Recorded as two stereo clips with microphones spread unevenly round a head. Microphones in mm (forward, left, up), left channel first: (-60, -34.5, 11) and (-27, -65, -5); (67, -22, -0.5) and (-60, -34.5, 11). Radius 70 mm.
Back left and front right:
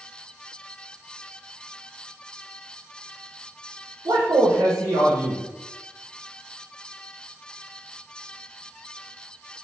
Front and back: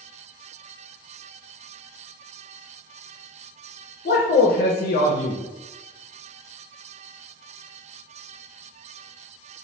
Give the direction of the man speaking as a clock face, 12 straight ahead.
1 o'clock.